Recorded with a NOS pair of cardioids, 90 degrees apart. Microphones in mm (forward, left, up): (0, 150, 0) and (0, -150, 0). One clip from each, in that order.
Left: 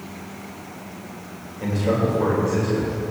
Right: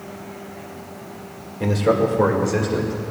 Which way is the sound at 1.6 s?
50° right.